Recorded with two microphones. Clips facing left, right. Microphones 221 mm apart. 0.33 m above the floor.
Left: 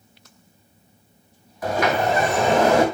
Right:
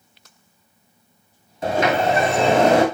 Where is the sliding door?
25° right (ahead or behind), 2.5 m.